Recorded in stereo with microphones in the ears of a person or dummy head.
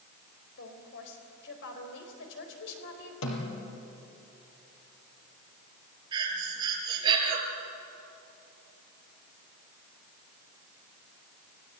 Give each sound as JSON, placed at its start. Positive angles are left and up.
{"t": 0.6, "sound": "a woman speaking", "side_deg": 75, "distance_m": 4.5}
{"t": 3.2, "sound": "a snare drum", "side_deg": 75, "distance_m": 4.5}
{"t": 6.1, "sound": "breathing", "side_deg": -25, "distance_m": 5.0}